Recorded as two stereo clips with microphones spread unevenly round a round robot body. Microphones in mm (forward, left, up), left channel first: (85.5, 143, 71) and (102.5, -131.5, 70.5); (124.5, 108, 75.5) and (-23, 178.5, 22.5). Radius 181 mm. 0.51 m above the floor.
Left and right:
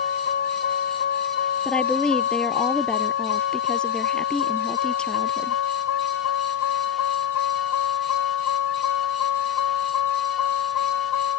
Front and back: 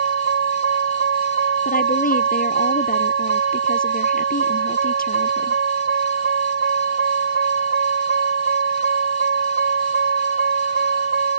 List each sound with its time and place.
0.0 s a vehicle: 160° left; by 11.4 s 135° left
1.6 s a woman speaking: 5° left